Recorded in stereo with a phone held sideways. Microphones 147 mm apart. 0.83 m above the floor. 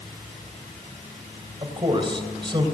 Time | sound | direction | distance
1.6 | a man speaking | 35° right (ahead or behind) | 3.5 m